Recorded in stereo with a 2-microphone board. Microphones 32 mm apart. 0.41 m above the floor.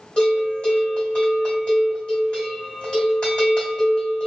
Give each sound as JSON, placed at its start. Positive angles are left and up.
{"t": 0.2, "sound": "a bell", "side_deg": 35, "distance_m": 1.8}